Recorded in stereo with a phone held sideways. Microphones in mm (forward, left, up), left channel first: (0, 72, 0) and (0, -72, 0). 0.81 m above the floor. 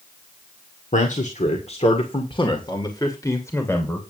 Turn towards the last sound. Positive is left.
turn(degrees=15)  # may be behind; listen again after turning